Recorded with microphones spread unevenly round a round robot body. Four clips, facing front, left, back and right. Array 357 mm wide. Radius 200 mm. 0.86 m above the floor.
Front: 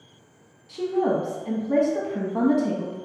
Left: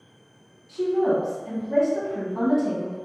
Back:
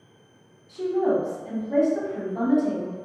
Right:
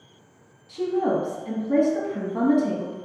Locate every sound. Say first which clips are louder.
0.7 s a woman speaking: left 1 dB, even; 15° right, 1.3 m